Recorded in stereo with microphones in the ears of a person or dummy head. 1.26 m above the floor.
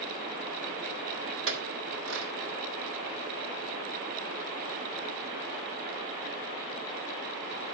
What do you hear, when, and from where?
1.5 s a clink: 75° right (ahead or behind), 1.8 m